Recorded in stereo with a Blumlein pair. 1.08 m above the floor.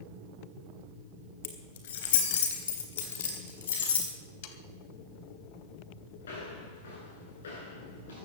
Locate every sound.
1.4 s keys jangling: 55° left, 3 m; by 4.1 s 70° left, 5 m
4.4 s sawing: 55° left, 1.9 m
6.2 s footsteps: 70° left, 8.5 m